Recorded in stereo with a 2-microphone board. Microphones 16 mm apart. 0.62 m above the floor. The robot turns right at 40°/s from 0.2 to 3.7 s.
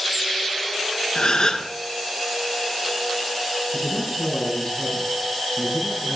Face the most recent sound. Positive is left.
turn(degrees=50)  # may be behind; listen again after turning